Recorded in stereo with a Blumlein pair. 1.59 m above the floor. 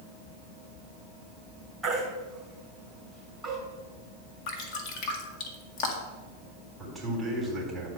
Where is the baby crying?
5° right, 4 m.